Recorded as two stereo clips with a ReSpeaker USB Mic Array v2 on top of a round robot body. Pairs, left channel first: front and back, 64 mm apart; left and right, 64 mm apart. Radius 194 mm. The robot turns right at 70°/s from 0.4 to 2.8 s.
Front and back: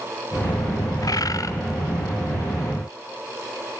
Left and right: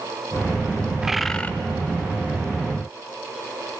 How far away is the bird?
About 0.9 m.